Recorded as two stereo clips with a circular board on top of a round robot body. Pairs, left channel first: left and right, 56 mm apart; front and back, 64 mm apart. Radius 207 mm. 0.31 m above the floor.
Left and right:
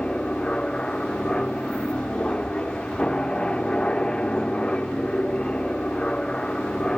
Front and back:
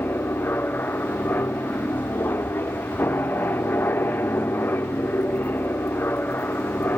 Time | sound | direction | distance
0.0 | an aircraft | 30° left | ?